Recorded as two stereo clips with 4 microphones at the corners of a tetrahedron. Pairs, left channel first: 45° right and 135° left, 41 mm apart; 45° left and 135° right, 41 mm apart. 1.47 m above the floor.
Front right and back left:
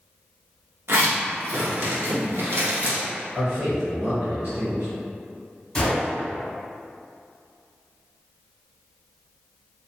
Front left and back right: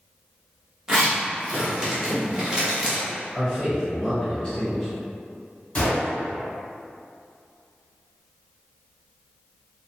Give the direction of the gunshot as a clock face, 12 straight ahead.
11 o'clock.